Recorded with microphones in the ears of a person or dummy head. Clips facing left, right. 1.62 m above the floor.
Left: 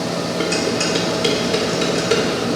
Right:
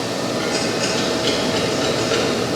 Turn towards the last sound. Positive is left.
turn(degrees=40)  # may be behind; listen again after turning